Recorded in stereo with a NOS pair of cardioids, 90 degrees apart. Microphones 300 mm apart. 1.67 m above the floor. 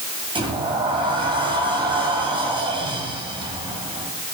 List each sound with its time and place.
0.3 s a sliding door: 15° right, 8.5 m